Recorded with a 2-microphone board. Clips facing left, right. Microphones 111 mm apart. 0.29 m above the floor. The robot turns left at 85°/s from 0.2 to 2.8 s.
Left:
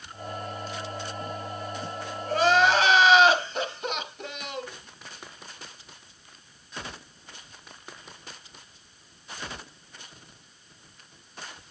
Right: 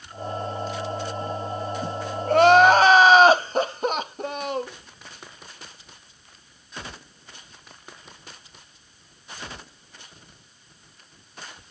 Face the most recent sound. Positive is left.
turn(degrees=-130)